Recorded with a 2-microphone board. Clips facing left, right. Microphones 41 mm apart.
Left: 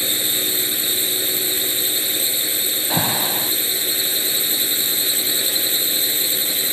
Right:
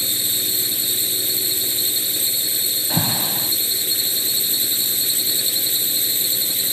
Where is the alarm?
25° left (ahead or behind).